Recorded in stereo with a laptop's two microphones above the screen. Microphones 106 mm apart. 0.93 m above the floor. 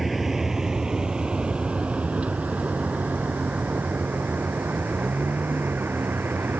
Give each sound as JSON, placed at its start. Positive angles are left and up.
{"t": 0.0, "sound": "a vehicle", "side_deg": 0}